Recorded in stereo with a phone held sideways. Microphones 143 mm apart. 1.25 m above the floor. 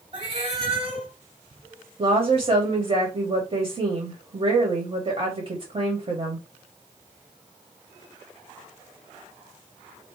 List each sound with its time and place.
0.1 s a cat meowing: 45° right (ahead or behind), 1.7 m
2.0 s a woman speaking: 50° right (ahead or behind), 1.5 m